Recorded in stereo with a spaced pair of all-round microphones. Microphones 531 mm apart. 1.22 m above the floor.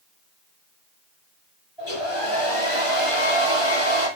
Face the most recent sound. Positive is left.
turn(degrees=55)  # may be behind; listen again after turning